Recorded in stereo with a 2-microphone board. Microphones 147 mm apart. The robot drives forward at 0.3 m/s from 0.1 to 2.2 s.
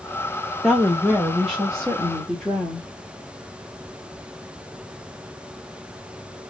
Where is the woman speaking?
5° left (ahead or behind), 0.8 m; by 2.9 s centre (ahead or behind), 1.2 m.